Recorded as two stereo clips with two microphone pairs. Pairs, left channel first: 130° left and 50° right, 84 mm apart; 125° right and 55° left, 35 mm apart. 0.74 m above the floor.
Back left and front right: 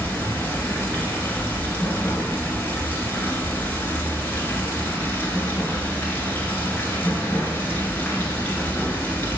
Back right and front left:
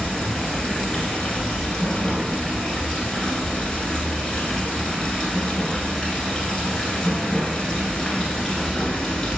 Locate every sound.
0.0 s running water: straight behind, 0.8 m